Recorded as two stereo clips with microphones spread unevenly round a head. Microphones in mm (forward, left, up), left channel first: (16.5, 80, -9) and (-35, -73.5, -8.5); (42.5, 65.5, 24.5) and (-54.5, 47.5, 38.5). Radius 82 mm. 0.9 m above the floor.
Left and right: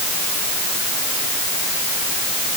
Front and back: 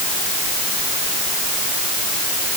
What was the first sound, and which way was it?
Only background noise.